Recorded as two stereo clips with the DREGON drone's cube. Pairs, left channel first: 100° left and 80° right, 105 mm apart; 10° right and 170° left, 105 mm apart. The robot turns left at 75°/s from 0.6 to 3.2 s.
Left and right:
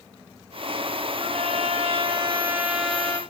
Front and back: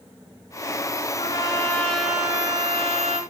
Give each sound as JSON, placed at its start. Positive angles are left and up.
{"t": 1.2, "sound": "a trumpet", "azimuth_deg": -40, "distance_m": 3.5}